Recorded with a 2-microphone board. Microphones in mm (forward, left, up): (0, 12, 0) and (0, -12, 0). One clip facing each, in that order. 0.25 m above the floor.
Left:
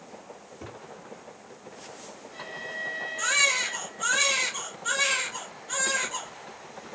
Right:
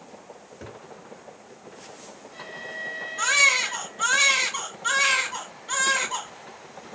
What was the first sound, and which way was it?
A cupboard door, 40° right (ahead or behind).